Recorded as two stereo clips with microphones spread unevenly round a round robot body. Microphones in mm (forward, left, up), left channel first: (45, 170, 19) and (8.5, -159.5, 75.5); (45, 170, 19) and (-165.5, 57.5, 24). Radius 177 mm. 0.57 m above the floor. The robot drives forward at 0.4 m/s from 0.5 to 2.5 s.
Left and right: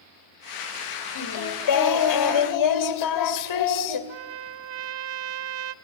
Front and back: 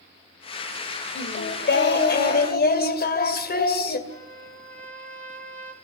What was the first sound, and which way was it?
Singing, 65° left.